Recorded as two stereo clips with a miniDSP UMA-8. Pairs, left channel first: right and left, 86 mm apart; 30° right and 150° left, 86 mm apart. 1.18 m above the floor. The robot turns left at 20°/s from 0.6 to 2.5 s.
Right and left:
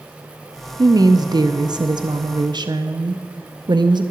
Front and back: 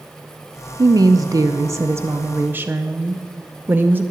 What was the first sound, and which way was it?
A woman speaking, 125° left.